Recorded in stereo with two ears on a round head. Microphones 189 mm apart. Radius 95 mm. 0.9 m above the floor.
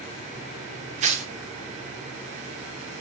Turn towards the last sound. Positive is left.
turn(degrees=-35)  # may be behind; listen again after turning